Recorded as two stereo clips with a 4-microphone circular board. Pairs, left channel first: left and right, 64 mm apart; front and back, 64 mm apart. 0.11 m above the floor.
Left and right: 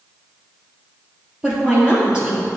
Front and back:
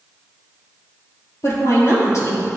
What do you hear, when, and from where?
1.4 s a woman speaking: 20° right, 2.0 m